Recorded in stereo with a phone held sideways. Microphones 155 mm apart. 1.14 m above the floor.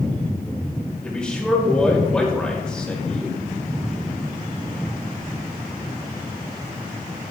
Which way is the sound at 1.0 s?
5° left (ahead or behind).